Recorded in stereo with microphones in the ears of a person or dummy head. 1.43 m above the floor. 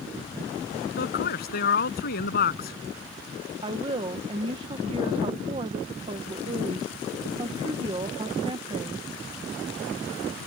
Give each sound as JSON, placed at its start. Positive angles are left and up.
{"t": 1.0, "sound": "a man speaking", "side_deg": 45}
{"t": 3.6, "sound": "a woman speaking", "side_deg": -25}